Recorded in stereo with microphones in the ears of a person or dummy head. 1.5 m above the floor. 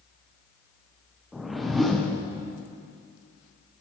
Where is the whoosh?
5° right (ahead or behind), 0.6 m.